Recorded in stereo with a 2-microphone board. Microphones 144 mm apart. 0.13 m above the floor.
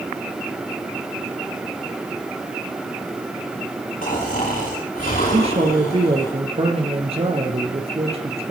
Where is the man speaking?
45° right (ahead or behind), 3 m.